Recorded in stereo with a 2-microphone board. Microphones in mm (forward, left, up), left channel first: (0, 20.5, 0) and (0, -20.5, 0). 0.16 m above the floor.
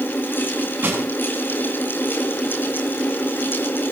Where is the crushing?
40° right (ahead or behind), 7 m.